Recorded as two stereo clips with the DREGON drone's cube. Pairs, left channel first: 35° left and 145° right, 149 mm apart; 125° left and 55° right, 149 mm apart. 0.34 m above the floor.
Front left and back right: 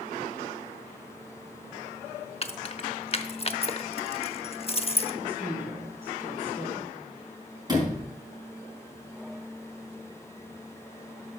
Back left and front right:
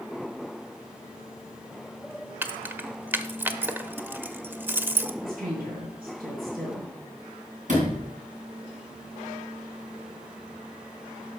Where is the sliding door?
85° right, 4.5 m.